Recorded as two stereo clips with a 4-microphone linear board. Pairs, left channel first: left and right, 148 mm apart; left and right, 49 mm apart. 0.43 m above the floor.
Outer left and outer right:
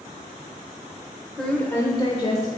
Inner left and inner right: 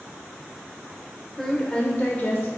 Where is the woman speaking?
5° left (ahead or behind), 1.3 m; by 2.5 s 45° left (ahead or behind), 1.2 m.